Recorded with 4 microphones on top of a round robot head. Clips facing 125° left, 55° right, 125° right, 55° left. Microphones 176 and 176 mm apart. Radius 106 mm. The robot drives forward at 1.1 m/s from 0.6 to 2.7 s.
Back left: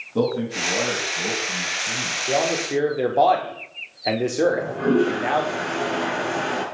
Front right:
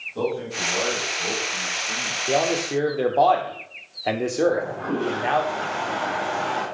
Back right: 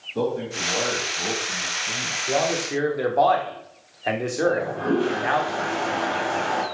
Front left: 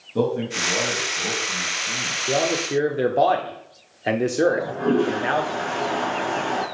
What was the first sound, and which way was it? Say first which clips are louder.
A man speaking: back left 4 dB, front left 3 dB; 100° left.